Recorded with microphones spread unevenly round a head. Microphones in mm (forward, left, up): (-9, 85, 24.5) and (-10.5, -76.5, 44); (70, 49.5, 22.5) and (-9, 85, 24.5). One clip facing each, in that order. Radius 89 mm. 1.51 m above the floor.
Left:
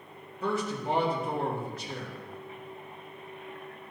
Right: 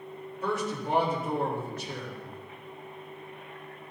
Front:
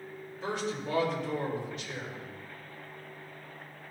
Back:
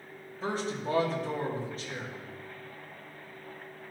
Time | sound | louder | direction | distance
0.4 | a man speaking | even, back 1 dB | 105° left | 3 m